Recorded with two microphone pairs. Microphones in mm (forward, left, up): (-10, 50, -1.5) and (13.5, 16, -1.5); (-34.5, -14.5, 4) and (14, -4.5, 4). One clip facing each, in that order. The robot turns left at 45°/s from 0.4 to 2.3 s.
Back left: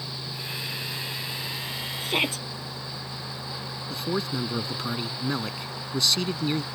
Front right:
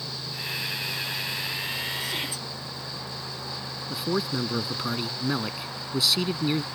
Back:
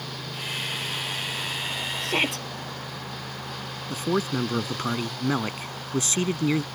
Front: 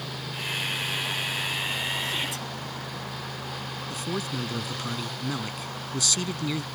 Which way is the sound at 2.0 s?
170° left.